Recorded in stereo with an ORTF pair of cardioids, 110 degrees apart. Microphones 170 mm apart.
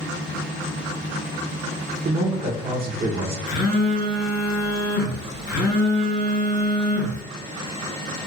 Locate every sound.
2.0 s a man speaking: 35° right, 0.7 m
3.5 s a phone buzzing: 60° left, 0.9 m